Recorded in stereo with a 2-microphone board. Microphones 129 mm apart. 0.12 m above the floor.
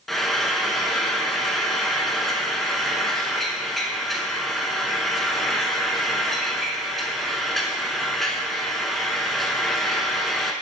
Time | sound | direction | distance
0.1 | frying | centre (ahead or behind) | 0.5 m